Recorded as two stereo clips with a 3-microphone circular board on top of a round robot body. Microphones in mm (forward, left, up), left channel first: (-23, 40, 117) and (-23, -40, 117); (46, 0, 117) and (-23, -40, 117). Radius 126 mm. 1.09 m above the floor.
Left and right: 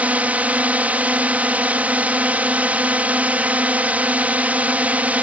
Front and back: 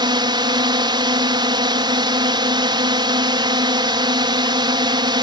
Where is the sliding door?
I don't hear a sliding door.